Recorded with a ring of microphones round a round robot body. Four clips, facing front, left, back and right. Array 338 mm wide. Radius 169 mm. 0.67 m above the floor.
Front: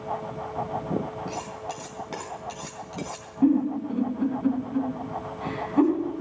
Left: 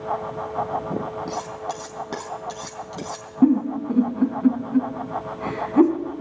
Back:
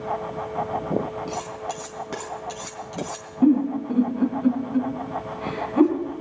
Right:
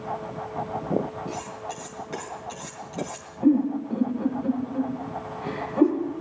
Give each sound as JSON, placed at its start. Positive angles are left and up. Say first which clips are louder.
{"t": 1.3, "sound": "cutlery clinking", "louder": "left 5 dB, back 3 dB", "azimuth_deg": 105, "distance_m": 4.0}
{"t": 3.4, "sound": "a giggle", "louder": "left 3 dB, back 3 dB", "azimuth_deg": 100, "distance_m": 3.5}